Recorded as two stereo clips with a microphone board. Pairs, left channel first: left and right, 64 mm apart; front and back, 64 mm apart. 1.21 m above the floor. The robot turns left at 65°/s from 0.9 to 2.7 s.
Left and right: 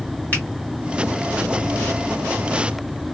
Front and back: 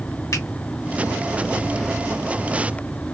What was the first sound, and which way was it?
A finger snap, 25° left.